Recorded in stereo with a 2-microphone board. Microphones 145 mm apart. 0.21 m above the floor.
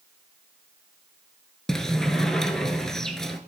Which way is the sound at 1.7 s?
5° left (ahead or behind).